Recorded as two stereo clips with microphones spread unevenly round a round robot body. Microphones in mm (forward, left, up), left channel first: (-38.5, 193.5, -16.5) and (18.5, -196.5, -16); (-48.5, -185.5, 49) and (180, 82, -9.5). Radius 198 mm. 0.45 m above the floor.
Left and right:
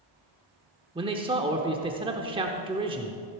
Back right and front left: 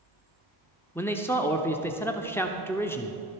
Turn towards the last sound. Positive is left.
turn(degrees=-30)